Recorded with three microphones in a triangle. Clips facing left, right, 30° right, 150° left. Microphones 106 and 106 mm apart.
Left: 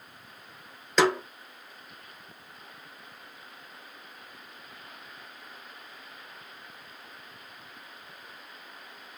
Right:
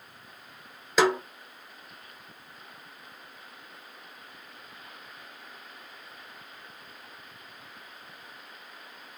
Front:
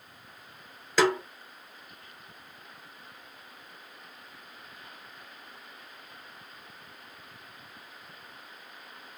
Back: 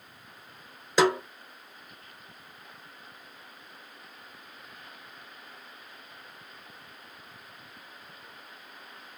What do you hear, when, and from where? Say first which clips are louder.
1.0 s a snare drum: even, back 1 dB; 165° right, 1.1 m